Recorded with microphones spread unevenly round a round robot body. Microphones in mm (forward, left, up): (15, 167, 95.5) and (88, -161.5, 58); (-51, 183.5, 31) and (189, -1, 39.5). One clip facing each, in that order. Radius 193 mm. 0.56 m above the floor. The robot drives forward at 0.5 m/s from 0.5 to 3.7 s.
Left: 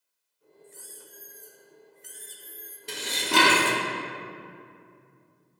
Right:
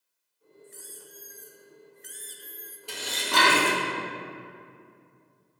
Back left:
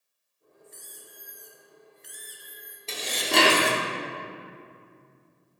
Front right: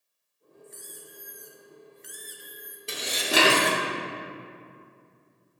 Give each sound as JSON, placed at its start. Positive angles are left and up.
{"t": 0.6, "sound": "a squeak", "azimuth_deg": -10, "distance_m": 1.4}
{"t": 2.9, "sound": "dishes clattering", "azimuth_deg": 35, "distance_m": 1.0}